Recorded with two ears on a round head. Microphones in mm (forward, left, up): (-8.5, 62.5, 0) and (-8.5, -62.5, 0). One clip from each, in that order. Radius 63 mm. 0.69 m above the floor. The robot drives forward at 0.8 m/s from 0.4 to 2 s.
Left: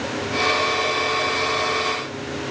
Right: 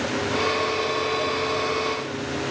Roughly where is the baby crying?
I don't hear a baby crying.